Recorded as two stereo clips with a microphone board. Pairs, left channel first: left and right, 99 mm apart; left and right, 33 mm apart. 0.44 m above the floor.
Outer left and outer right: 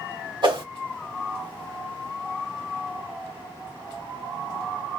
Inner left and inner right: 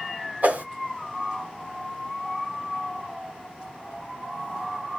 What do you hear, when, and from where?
0.4 s a whoosh: 55° right (ahead or behind), 1.2 m